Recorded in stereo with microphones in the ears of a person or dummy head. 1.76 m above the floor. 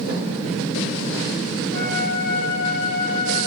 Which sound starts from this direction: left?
A flute, at 1.7 s.